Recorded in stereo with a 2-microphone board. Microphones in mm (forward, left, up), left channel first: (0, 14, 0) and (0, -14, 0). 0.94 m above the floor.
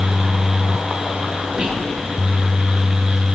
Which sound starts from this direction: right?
Whispering, at 1.6 s.